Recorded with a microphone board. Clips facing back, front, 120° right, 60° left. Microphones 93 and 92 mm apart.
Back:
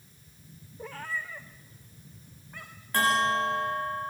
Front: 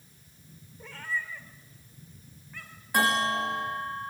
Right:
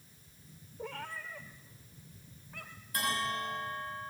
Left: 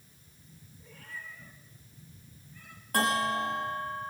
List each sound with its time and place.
0.8 s a cat meowing: 135° right, 4 m; by 3.0 s 140° right, 6.5 m
2.9 s a bell: 80° left, 10 m